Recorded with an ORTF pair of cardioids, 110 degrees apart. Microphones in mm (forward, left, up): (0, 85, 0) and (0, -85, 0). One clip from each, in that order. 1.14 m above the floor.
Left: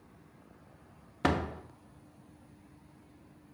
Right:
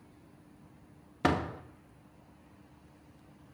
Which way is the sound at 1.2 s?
Straight ahead.